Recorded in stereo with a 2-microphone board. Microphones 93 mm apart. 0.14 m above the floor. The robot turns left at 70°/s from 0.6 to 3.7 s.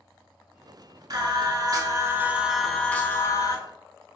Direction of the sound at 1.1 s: 75° right.